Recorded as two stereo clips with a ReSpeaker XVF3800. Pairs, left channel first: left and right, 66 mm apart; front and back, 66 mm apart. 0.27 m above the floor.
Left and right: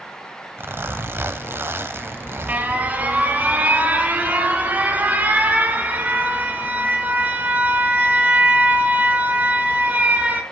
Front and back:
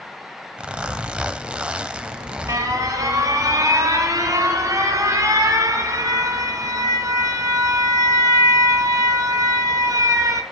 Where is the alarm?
155° right, 2.5 m.